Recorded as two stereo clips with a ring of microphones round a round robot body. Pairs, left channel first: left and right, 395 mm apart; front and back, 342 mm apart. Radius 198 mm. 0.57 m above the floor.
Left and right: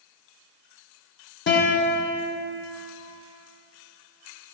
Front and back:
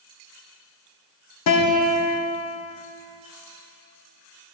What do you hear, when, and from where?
1.5 s a guitar: 30° left, 1.0 m